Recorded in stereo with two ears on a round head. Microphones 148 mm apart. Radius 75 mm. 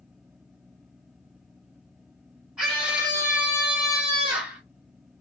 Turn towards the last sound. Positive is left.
turn(degrees=-10)  # may be behind; listen again after turning